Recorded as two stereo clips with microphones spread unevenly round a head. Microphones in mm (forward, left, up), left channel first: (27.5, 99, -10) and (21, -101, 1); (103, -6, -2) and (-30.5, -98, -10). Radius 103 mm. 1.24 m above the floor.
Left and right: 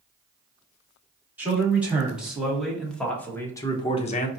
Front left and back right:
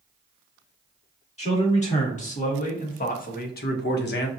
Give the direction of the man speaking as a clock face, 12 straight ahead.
12 o'clock.